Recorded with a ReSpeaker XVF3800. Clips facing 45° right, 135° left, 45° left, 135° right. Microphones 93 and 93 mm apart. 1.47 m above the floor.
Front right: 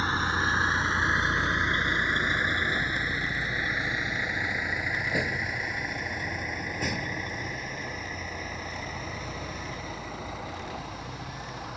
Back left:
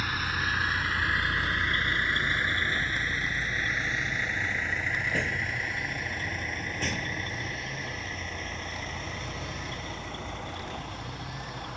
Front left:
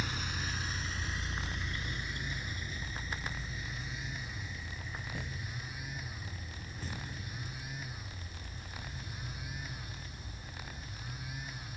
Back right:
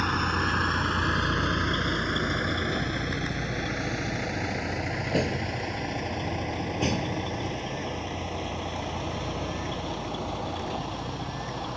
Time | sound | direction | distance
0.0 | a vehicle | 105° right | ?